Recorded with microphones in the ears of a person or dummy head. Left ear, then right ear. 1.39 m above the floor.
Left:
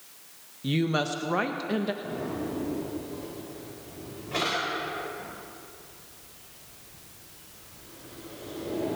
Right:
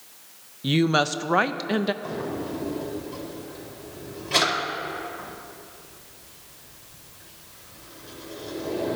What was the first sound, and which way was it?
A woman speaking, 25° right (ahead or behind).